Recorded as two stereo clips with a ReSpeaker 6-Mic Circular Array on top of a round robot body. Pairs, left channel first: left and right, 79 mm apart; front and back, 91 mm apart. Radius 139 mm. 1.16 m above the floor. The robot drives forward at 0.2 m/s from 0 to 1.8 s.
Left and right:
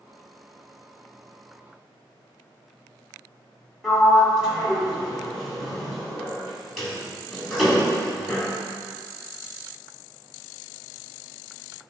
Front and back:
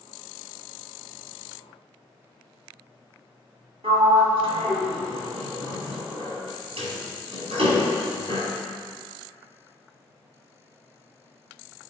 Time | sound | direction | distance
3.8 | a sliding door | 175° right | 2 m